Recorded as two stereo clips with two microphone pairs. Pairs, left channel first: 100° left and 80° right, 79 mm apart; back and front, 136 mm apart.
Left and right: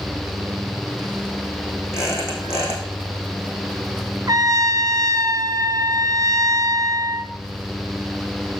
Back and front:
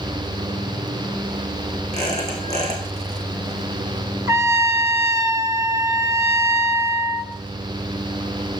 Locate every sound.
1.9 s a squeak: 40° left, 4.5 m
4.3 s a trumpet: 65° right, 0.8 m